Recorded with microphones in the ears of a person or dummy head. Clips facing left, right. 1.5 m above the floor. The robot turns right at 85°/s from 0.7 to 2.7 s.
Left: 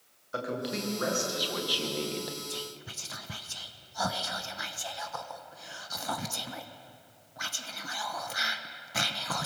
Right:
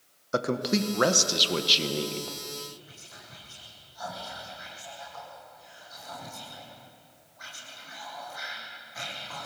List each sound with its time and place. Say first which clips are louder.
0.3 s a man speaking: right 7 dB; 120° right, 1.4 m; by 2.4 s 20° left, 1.4 m
2.5 s whispering: left 1 dB; 85° left, 1.2 m; by 9.5 s 75° left (ahead or behind), 1.2 m